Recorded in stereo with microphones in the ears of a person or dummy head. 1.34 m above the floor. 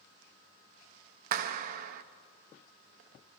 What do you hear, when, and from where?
1.3 s a clap: 45° right (ahead or behind), 0.8 m